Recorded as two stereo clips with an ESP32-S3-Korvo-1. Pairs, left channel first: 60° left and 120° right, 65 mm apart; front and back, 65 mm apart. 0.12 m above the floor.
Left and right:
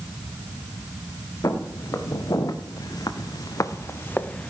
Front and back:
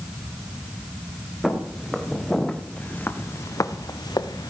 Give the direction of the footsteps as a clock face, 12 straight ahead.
9 o'clock.